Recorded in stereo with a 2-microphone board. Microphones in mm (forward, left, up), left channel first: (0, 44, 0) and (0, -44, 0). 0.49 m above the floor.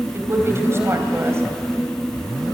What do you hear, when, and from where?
0.1 s a woman speaking: 30° right (ahead or behind), 3 m